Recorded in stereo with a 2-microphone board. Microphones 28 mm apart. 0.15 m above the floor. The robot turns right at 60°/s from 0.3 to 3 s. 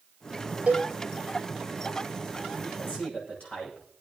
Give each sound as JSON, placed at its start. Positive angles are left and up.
{"t": 0.7, "sound": "a cowbell", "side_deg": -75, "distance_m": 3.0}
{"t": 2.6, "sound": "a man speaking", "side_deg": 65, "distance_m": 8.5}